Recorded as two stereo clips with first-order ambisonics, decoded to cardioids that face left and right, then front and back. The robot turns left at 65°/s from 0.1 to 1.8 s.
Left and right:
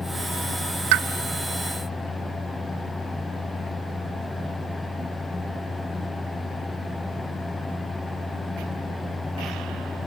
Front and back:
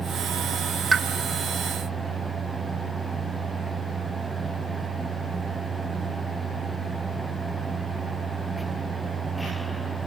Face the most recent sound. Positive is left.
turn(degrees=-160)